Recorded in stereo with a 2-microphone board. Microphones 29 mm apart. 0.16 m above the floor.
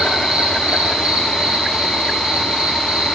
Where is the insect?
30° right (ahead or behind), 9 m.